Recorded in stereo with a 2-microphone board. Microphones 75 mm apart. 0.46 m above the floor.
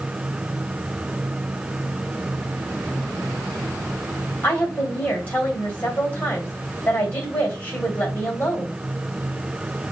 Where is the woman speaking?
25° left (ahead or behind), 2.5 m.